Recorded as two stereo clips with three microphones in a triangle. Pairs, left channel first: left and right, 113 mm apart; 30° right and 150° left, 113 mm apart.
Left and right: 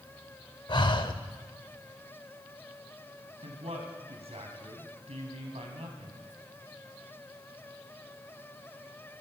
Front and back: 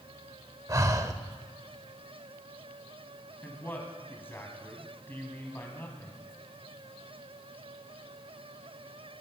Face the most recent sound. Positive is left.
turn(degrees=-100)